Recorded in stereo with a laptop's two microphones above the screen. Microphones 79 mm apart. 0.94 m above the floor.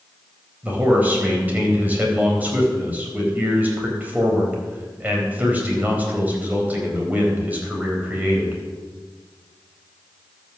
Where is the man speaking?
20° right (ahead or behind), 4 m.